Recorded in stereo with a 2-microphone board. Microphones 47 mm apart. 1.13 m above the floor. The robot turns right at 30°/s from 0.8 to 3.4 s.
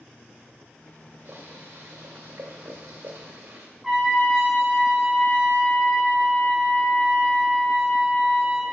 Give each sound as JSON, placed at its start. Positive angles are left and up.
{"t": 1.2, "sound": "boiling", "azimuth_deg": -125, "distance_m": 1.8}
{"t": 3.8, "sound": "a trumpet", "side_deg": -5, "distance_m": 1.8}